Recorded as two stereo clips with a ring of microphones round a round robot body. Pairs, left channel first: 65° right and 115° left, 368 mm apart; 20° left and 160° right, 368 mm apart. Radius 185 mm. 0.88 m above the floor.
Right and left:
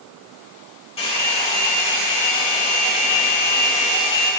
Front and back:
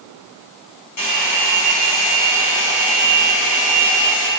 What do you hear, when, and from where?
1.0 s a hair dryer: 5° left, 5.5 m